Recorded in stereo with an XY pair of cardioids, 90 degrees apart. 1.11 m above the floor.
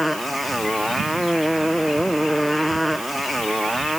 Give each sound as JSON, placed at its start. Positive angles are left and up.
{"t": 0.0, "sound": "a motorcycle", "azimuth_deg": 0}